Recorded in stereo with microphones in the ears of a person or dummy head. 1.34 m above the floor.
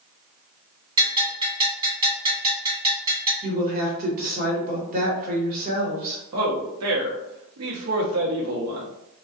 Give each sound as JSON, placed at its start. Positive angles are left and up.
{"t": 1.0, "sound": "a bell", "side_deg": -25, "distance_m": 1.7}
{"t": 3.4, "sound": "a woman speaking", "side_deg": -40, "distance_m": 1.2}
{"t": 6.3, "sound": "a man speaking", "side_deg": -70, "distance_m": 0.9}